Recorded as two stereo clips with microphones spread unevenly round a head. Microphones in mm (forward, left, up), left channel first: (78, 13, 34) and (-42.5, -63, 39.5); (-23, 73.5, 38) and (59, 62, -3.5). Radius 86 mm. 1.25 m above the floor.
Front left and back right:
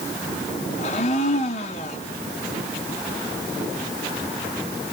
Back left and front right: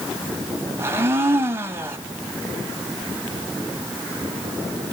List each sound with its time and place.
0.8 s a blender: 70° left, 1.3 m